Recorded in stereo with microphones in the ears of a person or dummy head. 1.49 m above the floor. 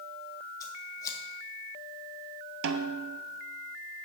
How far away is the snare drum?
About 0.6 m.